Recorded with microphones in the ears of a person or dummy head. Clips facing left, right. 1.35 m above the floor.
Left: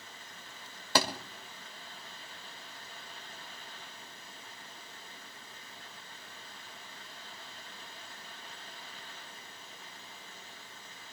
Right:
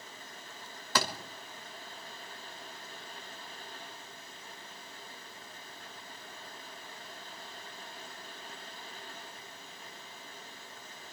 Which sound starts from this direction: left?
A thud, at 0.9 s.